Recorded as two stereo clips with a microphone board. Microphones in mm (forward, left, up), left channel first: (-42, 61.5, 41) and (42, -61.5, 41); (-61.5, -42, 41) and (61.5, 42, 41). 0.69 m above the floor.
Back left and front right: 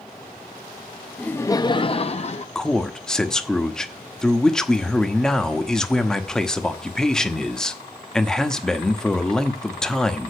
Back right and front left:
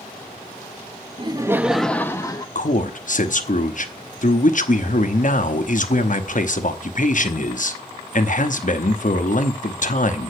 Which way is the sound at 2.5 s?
150° right.